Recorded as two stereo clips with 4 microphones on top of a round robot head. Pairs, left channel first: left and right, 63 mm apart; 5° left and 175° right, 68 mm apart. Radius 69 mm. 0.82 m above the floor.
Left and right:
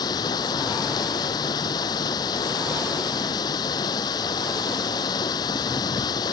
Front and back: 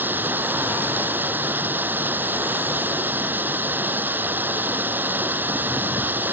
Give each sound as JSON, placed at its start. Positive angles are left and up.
{"t": 0.0, "sound": "running water", "azimuth_deg": 120}